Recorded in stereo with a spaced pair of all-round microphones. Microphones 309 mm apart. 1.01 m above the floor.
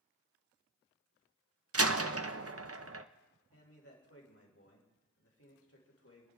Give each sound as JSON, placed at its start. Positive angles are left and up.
{"t": 1.7, "sound": "a door slam", "side_deg": -50, "distance_m": 0.7}
{"t": 3.5, "sound": "a man speaking", "side_deg": 50, "distance_m": 3.5}